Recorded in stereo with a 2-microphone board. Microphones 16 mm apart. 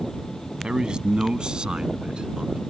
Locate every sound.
0.6 s a man speaking: 60° right (ahead or behind); by 2.6 s 65° right (ahead or behind)